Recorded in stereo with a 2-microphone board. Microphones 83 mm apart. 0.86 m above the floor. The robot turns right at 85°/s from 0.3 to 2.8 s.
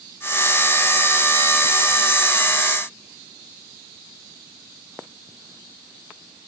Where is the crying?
I don't hear crying.